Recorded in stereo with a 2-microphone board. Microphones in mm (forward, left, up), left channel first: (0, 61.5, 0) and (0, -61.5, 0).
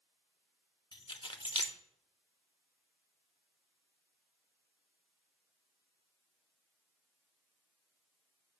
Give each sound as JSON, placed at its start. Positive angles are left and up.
{"t": 0.9, "sound": "keys jangling", "side_deg": 40, "distance_m": 0.7}